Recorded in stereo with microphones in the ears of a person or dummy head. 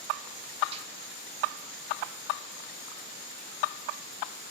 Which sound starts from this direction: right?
A snare drum, at 0.7 s.